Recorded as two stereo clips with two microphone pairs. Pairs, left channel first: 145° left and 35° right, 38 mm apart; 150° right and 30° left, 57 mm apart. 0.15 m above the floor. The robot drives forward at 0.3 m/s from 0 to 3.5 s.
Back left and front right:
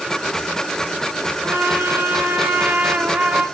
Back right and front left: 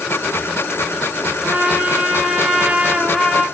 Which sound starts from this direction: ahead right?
A trumpet, at 1.4 s.